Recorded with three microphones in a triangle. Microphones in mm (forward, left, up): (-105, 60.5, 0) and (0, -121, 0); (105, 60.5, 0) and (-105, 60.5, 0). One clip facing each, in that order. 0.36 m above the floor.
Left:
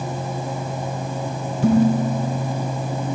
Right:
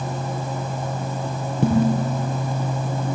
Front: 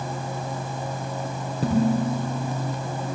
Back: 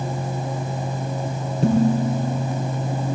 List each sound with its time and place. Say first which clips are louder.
1.6 s dishes clattering: left 3 dB, back 3 dB; 85° right, 7.5 m